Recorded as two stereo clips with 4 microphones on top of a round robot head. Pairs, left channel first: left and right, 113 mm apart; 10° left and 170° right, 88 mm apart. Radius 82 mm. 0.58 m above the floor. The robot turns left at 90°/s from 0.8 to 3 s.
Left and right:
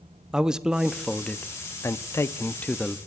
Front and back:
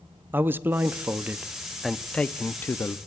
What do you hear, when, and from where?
0.3 s a man speaking: 165° right, 0.6 m; by 3.0 s straight ahead, 0.6 m